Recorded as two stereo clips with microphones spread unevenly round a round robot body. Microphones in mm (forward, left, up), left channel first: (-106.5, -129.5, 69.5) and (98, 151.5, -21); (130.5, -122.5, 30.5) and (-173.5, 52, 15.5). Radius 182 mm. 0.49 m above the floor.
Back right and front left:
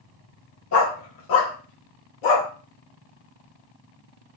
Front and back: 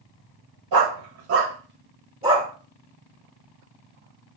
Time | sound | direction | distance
0.7 | a dog barking | 175° right | 1.0 m